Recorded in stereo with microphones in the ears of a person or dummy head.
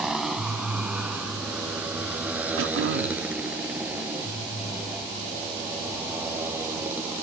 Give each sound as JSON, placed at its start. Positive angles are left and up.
{"t": 0.0, "sound": "a motorcycle", "side_deg": -5}
{"t": 2.6, "sound": "throat clearing", "side_deg": -70}